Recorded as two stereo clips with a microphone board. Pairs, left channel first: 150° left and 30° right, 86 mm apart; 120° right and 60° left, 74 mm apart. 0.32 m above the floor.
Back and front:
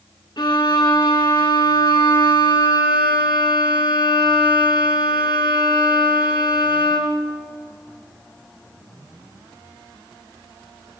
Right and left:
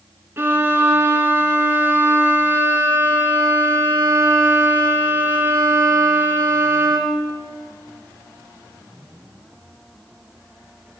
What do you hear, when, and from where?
0.4 s a violin: 120° left, 3 m